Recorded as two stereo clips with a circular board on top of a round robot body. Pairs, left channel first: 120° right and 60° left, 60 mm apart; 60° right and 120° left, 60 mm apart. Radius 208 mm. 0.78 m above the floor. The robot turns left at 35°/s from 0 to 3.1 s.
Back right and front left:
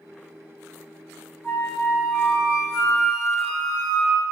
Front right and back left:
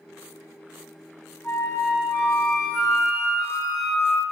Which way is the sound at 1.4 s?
100° right.